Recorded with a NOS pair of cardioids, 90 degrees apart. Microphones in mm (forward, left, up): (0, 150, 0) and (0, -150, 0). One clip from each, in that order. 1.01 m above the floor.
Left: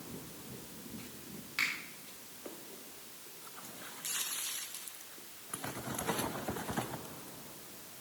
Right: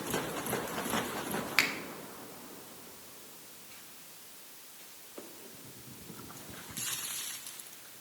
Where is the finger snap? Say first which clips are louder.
Right 5 dB; 65° right, 1.4 m.